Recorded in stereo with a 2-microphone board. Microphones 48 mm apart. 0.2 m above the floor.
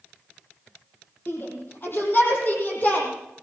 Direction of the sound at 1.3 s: 50° left (ahead or behind).